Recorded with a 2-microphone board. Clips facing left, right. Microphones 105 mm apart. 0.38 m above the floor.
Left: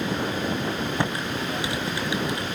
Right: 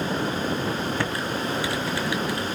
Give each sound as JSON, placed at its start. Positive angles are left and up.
{"t": 1.0, "sound": "typing on a keyboard", "side_deg": 20, "distance_m": 1.7}